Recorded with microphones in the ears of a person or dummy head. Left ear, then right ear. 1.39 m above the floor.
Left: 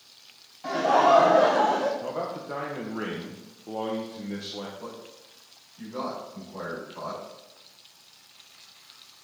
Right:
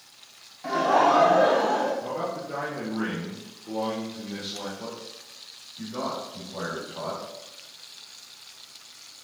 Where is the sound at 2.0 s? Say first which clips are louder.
Right 1 dB; 45° left (ahead or behind), 1.4 m.